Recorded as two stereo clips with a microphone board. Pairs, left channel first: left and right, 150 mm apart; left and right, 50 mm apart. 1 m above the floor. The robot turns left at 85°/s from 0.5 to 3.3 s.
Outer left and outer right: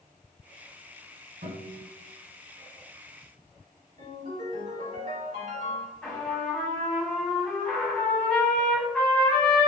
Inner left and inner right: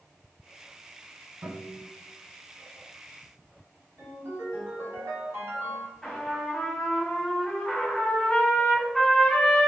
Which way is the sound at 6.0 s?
10° left (ahead or behind).